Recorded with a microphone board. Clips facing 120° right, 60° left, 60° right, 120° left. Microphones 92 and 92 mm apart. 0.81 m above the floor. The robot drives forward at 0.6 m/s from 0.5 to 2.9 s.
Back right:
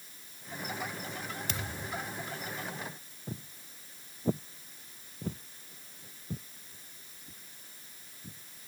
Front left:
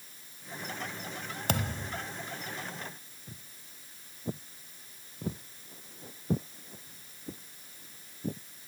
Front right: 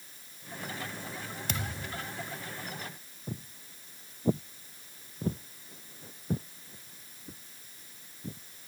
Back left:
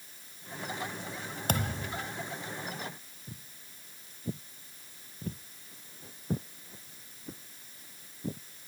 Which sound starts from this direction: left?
A thud, at 1.5 s.